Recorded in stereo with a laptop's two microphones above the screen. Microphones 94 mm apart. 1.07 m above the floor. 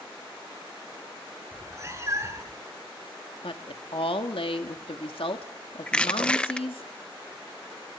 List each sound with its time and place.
1.5 s a cat meowing: 30° right (ahead or behind), 6 m
3.4 s a woman speaking: 75° left (ahead or behind), 2.5 m
5.9 s crushing: 10° left (ahead or behind), 0.7 m